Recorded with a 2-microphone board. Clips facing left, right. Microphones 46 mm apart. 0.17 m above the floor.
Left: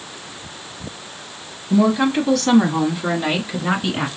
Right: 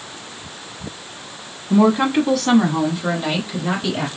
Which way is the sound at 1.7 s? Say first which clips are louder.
Right 1 dB; 25° right (ahead or behind).